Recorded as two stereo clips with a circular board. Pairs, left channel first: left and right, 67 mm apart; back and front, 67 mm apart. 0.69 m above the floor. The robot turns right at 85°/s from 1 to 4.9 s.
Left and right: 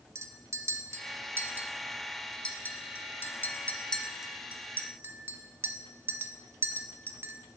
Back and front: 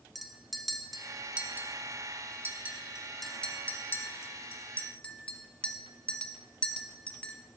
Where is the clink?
90° right, 0.6 m; by 7.3 s 120° right, 0.6 m.